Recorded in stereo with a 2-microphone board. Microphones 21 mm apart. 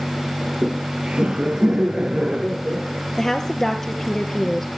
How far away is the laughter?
About 2.5 m.